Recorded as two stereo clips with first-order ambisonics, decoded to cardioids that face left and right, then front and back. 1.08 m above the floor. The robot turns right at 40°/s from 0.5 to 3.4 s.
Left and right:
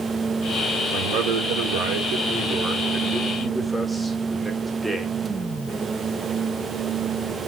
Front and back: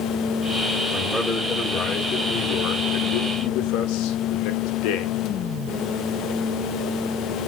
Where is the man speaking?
105° right, 1.2 m; by 5.1 s 5° right, 1.2 m.